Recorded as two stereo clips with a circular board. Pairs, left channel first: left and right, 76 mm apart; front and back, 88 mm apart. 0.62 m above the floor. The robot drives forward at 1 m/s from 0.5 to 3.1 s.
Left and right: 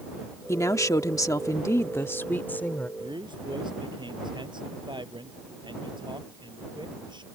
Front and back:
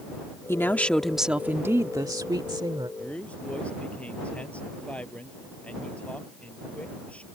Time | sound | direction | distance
0.5 | a woman speaking | 50° left | ?
3.0 | a man speaking | 75° right | ?